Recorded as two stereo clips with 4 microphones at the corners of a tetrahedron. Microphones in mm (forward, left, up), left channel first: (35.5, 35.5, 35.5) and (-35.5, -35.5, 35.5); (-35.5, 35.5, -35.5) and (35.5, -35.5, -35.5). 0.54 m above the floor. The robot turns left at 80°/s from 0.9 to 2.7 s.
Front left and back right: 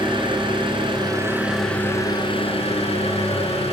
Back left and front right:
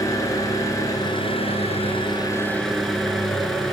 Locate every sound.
0.0 s an engine running: 170° right, 3.5 m; by 3.7 s 45° left, 3.5 m